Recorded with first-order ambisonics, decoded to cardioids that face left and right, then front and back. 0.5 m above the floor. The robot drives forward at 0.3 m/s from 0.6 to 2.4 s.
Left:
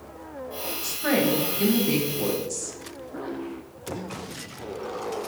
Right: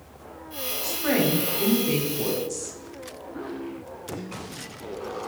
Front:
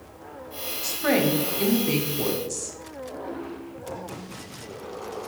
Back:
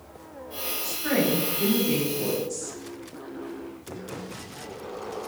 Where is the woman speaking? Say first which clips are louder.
Left 1 dB, front 3 dB; 5° left, 1.1 m; by 2.8 s 10° left, 0.8 m.